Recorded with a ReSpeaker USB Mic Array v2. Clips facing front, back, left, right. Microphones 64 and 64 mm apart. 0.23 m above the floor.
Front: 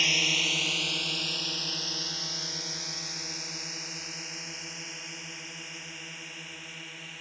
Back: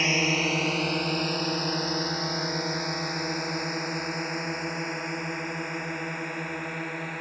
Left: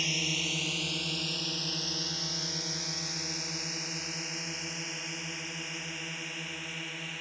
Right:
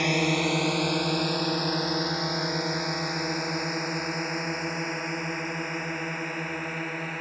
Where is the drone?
120° right; by 7.2 s 140° right.